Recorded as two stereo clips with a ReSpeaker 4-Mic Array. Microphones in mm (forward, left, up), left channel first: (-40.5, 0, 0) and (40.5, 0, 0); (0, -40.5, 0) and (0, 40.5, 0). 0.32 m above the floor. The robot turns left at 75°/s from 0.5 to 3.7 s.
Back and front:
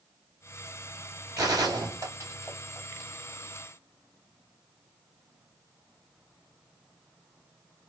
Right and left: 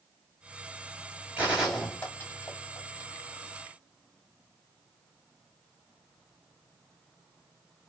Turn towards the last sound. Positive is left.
turn(degrees=-150)